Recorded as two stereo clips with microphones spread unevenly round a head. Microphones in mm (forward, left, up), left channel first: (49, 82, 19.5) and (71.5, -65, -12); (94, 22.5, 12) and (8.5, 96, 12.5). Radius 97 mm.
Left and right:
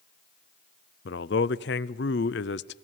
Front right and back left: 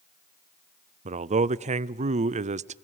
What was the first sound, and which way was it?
A man speaking, 120° left.